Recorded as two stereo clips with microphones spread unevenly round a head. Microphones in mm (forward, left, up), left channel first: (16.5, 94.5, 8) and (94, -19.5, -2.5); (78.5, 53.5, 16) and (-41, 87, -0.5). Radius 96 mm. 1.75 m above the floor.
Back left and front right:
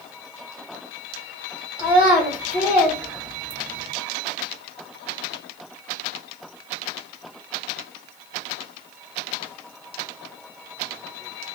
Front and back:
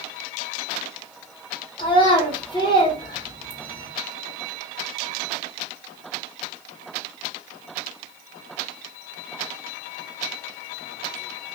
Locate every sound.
1.8 s a child speaking: 25° left, 1.6 m